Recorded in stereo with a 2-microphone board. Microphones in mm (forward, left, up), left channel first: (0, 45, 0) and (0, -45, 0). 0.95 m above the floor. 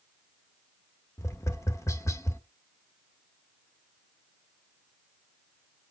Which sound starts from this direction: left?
Tapping, at 1.2 s.